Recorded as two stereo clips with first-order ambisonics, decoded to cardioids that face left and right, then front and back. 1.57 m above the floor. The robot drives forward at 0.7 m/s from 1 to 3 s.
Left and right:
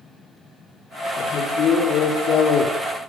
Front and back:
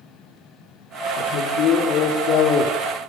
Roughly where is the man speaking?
Ahead left.